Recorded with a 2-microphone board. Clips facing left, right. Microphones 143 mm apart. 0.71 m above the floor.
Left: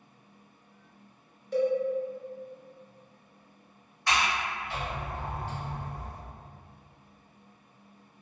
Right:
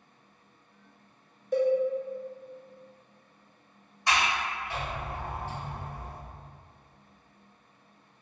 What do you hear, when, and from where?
1.5 s a cowbell: 45° right (ahead or behind), 0.7 m
4.1 s a sliding door: 20° right (ahead or behind), 1.6 m